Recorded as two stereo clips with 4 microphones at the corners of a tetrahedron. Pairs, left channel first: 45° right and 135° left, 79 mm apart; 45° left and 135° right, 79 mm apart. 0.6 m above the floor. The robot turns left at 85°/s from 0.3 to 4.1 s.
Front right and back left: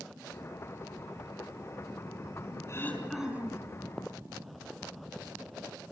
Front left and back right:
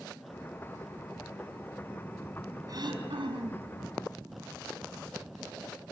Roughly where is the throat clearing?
Right.